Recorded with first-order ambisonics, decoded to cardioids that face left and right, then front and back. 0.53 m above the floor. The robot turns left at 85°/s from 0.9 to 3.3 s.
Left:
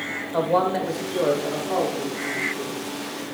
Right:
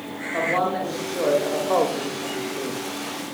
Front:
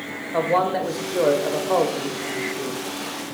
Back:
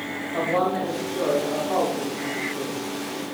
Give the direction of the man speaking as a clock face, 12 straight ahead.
11 o'clock.